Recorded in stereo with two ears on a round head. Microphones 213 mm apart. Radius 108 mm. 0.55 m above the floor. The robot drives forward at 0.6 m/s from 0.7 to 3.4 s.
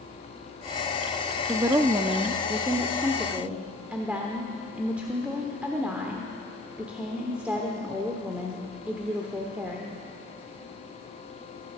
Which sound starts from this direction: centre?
A woman speaking, at 1.5 s.